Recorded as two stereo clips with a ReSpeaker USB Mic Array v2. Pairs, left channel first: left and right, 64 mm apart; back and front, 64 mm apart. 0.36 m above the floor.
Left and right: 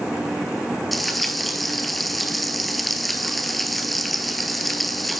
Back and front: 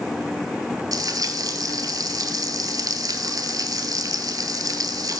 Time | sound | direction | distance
0.9 | frying | straight ahead | 1.3 m